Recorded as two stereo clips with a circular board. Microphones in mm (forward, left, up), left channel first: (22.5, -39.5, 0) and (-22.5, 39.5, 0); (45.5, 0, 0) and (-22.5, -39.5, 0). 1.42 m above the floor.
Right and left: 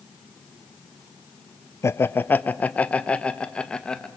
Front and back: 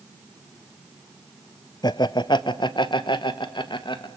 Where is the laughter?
Straight ahead, 0.6 m; by 4.1 s 20° left, 1.8 m.